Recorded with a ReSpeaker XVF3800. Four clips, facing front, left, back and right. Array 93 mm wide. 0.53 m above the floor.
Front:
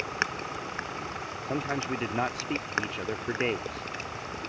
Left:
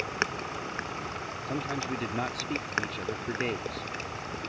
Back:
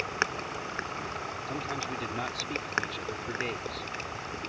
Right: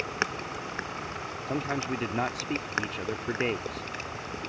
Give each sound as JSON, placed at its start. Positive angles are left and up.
{"t": 1.5, "sound": "a man speaking", "azimuth_deg": -35}